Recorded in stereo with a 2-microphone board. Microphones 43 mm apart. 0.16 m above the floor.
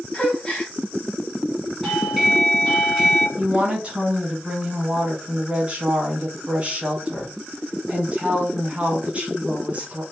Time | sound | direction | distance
0.1 | a gasp | 25° left (ahead or behind) | 1.0 m
1.8 | a doorbell | 5° left (ahead or behind) | 1.6 m
3.4 | a woman speaking | 25° right (ahead or behind) | 1.1 m